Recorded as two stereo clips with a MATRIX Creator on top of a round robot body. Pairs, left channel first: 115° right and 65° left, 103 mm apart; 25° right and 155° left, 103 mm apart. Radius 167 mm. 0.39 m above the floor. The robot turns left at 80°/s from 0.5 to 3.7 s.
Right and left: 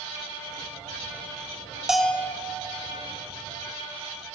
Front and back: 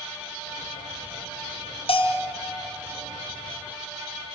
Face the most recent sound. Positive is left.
turn(degrees=-160)